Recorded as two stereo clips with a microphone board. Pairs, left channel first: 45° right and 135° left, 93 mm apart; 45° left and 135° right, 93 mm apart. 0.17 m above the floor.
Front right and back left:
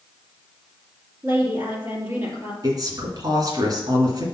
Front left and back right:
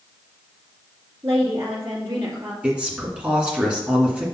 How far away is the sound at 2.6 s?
About 1.9 m.